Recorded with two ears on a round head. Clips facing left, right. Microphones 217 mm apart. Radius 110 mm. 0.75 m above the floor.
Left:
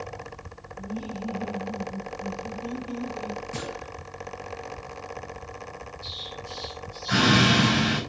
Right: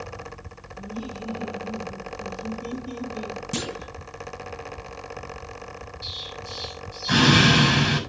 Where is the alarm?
No alarm in this recording.